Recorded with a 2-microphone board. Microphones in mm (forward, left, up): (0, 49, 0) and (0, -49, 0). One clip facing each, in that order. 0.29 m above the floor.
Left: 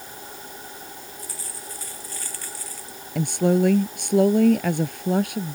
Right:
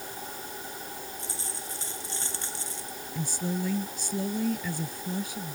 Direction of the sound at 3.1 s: 75° left (ahead or behind).